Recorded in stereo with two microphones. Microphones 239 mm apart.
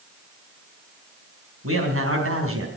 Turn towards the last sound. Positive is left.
turn(degrees=-70)  # may be behind; listen again after turning